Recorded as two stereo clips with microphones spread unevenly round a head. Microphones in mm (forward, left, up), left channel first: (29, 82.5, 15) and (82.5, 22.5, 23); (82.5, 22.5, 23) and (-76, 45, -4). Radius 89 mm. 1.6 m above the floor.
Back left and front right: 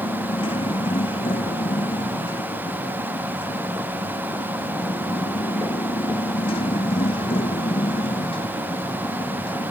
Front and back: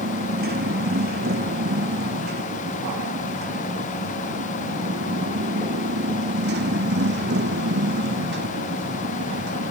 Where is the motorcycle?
150° left; by 9.7 s 160° left.